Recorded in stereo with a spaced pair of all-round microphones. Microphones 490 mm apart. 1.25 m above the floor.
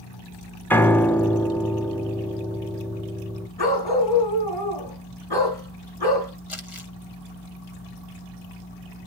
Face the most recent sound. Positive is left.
turn(degrees=80)